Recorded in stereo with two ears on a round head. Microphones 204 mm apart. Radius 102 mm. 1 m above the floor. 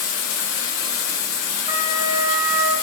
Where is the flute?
20° right (ahead or behind), 0.6 m.